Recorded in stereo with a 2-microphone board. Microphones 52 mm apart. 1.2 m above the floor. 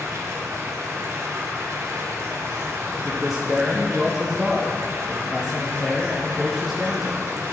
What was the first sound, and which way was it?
Running water, 65° right (ahead or behind).